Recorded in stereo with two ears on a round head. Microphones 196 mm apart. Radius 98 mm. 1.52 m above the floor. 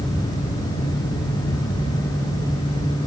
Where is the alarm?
I don't hear an alarm.